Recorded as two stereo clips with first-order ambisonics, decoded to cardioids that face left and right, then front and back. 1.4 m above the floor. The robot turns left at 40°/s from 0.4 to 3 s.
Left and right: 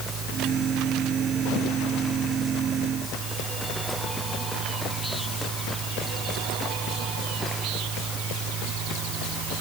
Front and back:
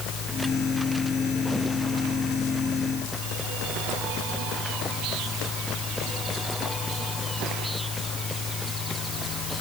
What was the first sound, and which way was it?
Only background noise.